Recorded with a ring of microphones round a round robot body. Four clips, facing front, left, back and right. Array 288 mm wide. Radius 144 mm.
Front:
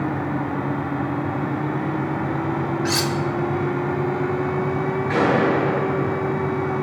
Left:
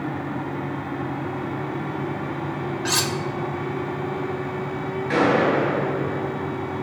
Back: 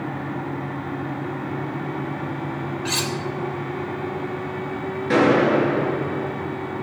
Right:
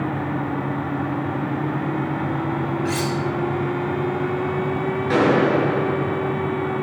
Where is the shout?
I don't hear a shout.